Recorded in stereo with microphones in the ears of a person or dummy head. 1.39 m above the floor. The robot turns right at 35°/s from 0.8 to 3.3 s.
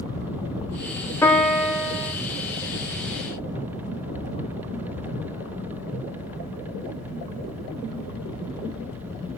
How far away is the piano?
About 0.5 m.